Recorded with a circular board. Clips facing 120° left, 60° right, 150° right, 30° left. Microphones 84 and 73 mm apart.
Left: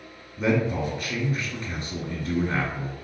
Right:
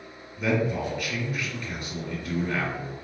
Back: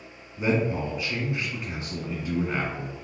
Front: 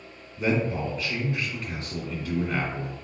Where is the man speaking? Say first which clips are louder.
Left 2 dB, back 1 dB; 155° left, 1.5 m.